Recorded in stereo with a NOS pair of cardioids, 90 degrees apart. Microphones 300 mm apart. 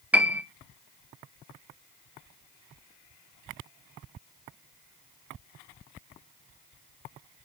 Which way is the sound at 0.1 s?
5° right.